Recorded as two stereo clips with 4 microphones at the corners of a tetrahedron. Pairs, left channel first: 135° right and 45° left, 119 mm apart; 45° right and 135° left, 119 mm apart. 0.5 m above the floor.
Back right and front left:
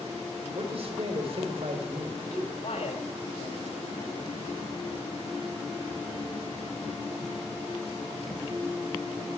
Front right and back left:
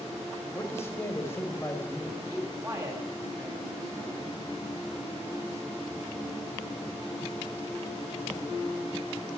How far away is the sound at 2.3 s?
About 3 m.